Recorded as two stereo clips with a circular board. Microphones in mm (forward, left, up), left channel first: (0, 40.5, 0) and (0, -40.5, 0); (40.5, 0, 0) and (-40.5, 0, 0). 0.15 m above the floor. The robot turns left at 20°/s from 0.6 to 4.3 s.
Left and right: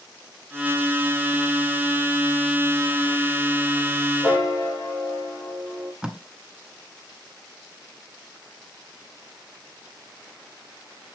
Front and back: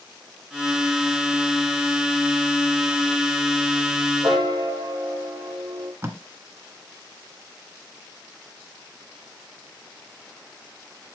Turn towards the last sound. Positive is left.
turn(degrees=-165)